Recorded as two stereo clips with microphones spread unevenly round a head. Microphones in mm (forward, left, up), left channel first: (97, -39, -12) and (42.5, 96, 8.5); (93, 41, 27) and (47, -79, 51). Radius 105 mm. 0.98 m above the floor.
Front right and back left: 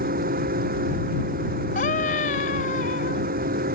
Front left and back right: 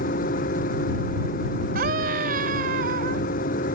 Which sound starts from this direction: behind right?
A scream, at 1.8 s.